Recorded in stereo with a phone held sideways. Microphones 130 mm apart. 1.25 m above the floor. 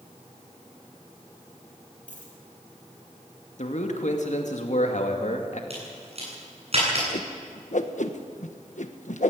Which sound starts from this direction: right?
A crack, at 5.7 s.